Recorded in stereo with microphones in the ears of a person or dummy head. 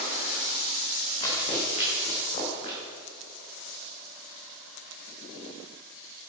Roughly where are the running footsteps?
Left.